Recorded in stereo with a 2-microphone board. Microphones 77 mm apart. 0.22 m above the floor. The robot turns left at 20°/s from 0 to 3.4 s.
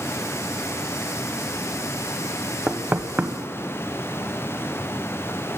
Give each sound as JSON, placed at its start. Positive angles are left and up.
{"t": 2.7, "sound": "knocking", "side_deg": -20, "distance_m": 0.8}